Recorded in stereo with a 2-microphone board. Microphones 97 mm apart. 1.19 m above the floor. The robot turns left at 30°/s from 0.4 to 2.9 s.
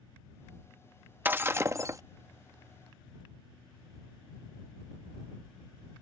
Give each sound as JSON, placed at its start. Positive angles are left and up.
{"t": 1.2, "sound": "breaking glass", "side_deg": -20}